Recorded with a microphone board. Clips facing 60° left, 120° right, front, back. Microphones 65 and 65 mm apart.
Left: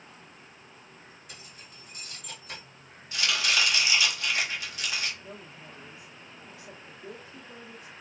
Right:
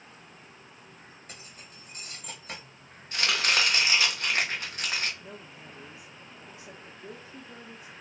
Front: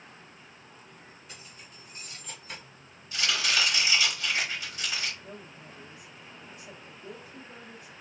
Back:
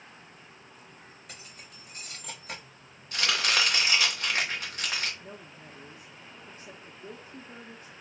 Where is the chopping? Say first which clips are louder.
Right 1 dB, back 1 dB; 155° right, 1.2 m.